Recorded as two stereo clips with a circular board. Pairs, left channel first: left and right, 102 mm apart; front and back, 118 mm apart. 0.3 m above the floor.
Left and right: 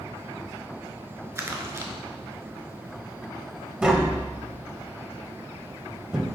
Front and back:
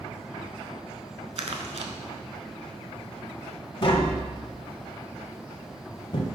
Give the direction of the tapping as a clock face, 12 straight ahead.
12 o'clock.